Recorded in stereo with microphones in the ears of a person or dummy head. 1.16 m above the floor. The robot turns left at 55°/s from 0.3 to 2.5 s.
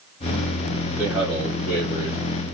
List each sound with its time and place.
1.0 s a man speaking: 165° right, 1.0 m; by 2.2 s 125° left, 1.0 m